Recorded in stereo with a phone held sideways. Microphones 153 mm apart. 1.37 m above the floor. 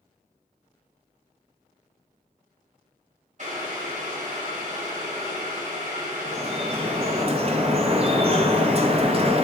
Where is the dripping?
40° right (ahead or behind), 0.8 m.